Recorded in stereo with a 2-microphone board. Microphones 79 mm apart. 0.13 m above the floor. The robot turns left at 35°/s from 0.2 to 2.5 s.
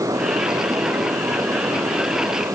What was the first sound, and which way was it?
Only background noise.